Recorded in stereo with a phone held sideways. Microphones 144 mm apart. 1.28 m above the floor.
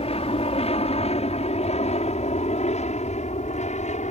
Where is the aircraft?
45° left (ahead or behind); by 4.1 s 55° left (ahead or behind).